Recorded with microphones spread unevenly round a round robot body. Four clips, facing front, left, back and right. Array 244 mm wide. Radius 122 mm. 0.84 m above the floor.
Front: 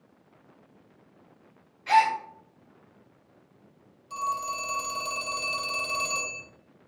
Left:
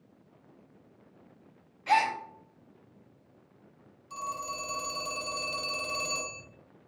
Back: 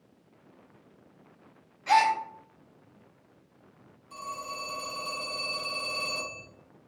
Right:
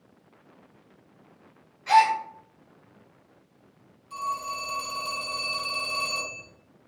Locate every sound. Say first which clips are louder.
1.9 s a gasp: right 7 dB, front 1 dB; 135° left, 0.8 m
4.1 s a phone ringing: right 5 dB, front 8 dB; 10° left, 1.0 m